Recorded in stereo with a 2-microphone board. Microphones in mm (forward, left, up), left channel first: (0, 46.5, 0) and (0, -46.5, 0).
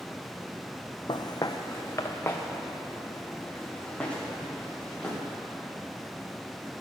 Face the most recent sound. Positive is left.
turn(degrees=10)  # may be behind; listen again after turning